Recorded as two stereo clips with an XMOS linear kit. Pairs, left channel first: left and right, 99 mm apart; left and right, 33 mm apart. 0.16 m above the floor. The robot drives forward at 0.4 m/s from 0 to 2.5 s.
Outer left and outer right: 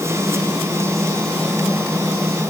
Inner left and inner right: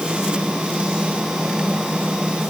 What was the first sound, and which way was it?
Only background noise.